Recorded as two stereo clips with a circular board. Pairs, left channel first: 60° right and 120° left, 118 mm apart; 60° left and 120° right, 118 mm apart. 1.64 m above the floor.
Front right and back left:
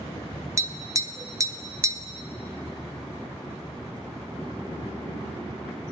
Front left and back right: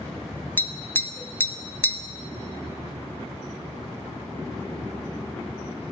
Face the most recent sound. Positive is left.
turn(degrees=115)